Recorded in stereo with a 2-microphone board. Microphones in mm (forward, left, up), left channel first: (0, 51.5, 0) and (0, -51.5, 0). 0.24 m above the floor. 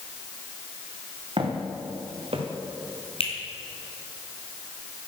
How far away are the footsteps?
About 3 m.